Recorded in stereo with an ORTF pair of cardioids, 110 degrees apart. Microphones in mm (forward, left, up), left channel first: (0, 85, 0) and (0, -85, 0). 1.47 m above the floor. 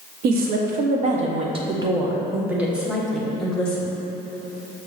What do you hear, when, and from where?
0.2 s a woman speaking: 65° right, 1.2 m; by 3.9 s 10° left, 1.8 m